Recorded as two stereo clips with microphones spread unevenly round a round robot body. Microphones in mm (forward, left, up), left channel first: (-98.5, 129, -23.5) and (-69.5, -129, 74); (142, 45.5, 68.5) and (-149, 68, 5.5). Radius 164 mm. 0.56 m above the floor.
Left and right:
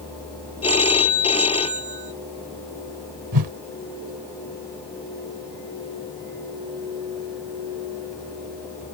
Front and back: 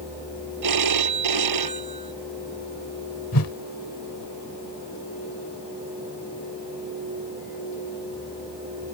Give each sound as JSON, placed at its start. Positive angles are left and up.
{"t": 0.6, "sound": "a phone ringing", "azimuth_deg": 165}
{"t": 3.3, "sound": "a whoosh", "azimuth_deg": -50}